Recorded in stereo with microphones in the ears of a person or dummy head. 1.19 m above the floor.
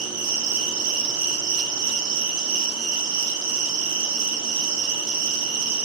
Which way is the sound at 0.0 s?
55° right (ahead or behind).